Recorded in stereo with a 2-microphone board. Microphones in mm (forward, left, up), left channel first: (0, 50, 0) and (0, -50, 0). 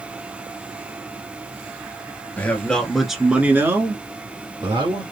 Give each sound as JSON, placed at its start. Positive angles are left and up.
{"t": 2.4, "sound": "a man speaking", "side_deg": 15, "distance_m": 1.5}